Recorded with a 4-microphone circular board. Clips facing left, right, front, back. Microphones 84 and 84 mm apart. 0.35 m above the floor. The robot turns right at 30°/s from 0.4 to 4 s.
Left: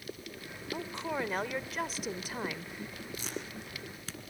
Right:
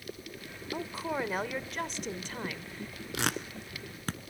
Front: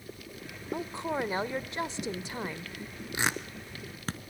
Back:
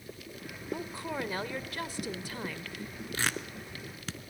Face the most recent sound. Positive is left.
turn(degrees=-45)